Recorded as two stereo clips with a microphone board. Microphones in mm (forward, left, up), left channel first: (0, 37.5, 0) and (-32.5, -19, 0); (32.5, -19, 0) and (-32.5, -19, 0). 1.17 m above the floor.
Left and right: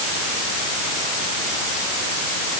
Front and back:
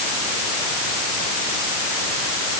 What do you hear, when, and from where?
Only background noise.